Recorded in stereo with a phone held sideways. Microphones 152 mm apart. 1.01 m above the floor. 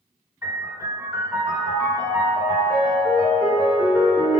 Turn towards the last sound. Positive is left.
turn(degrees=-20)  # may be behind; listen again after turning